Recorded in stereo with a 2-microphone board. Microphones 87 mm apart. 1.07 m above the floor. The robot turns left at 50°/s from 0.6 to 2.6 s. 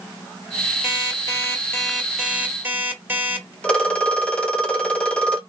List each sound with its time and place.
0.8 s an alarm clock: 65° left, 2 m; by 3.5 s 20° right, 2 m
3.6 s a phone ringing: 10° left (ahead or behind), 1.2 m